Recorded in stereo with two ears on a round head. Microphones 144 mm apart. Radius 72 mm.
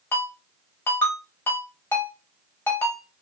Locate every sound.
0.1 s a ringtone: 15° left (ahead or behind), 1.1 m